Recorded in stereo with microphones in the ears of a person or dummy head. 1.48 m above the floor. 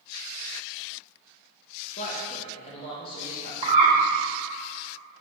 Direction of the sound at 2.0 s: 45° left (ahead or behind).